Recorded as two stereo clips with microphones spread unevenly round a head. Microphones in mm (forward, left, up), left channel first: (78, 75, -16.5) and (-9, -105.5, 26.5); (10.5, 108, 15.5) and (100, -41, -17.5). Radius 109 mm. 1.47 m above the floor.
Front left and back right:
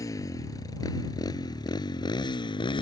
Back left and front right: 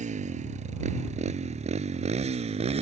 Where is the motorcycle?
10° right; by 2.8 s 5° right.